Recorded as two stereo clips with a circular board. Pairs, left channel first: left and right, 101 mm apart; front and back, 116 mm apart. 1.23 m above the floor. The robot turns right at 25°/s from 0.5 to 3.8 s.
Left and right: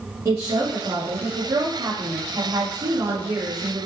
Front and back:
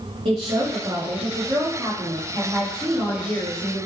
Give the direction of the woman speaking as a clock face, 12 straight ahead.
5 o'clock.